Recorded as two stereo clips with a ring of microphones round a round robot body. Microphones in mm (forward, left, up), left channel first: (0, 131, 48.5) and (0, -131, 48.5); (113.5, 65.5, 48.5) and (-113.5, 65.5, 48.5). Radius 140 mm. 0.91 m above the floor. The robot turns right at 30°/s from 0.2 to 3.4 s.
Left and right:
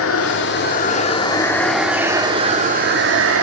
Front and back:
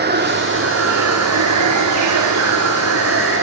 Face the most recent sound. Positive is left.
turn(degrees=-130)